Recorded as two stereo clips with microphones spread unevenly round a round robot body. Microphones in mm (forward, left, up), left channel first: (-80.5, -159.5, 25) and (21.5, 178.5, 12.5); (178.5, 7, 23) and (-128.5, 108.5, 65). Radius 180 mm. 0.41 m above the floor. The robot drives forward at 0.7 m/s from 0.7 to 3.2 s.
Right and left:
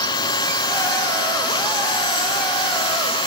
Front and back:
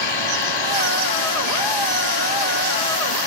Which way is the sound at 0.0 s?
30° right.